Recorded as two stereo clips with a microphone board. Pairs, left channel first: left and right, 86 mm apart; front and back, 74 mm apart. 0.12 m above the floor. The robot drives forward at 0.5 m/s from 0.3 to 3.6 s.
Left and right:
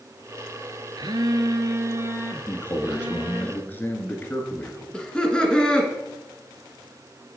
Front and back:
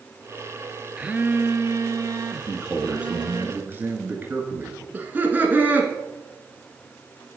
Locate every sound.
1.0 s a phone buzzing: 105° right, 0.5 m; by 3.5 s 160° right, 1.4 m
2.5 s a man speaking: 100° left, 1.2 m; by 4.8 s 140° left, 1.4 m
4.9 s laughter: 155° left, 1.5 m